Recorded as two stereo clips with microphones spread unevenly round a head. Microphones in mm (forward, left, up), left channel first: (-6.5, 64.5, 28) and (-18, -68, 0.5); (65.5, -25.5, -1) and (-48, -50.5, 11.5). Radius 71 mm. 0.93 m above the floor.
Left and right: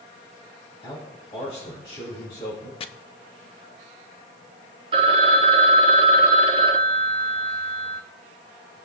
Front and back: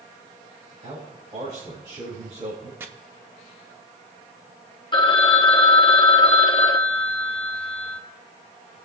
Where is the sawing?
I don't hear sawing.